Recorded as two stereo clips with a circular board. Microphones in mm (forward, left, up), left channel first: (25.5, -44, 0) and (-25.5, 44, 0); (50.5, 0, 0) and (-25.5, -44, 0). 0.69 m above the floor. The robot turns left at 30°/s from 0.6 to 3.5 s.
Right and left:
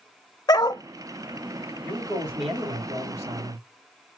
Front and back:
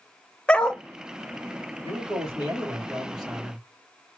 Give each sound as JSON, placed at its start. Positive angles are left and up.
{"t": 0.5, "sound": "a dog barking", "azimuth_deg": -40, "distance_m": 0.5}
{"t": 1.8, "sound": "a man speaking", "azimuth_deg": 165, "distance_m": 3.5}